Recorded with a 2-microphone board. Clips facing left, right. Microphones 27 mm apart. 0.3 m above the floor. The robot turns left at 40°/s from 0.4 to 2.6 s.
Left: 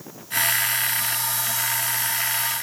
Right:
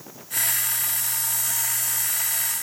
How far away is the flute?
No flute in this recording.